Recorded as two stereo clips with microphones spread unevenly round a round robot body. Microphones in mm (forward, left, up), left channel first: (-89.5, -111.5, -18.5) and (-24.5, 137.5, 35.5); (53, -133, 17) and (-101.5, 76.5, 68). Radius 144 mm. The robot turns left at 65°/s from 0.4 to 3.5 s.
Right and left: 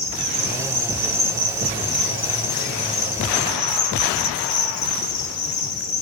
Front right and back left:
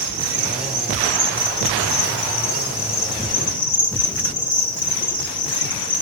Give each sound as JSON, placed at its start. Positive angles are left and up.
{"t": 0.0, "sound": "an insect", "azimuth_deg": 95, "distance_m": 2.5}